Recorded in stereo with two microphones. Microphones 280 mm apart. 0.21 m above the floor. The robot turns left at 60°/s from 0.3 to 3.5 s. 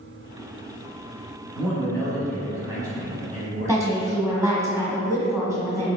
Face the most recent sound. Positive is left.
turn(degrees=-10)  # may be behind; listen again after turning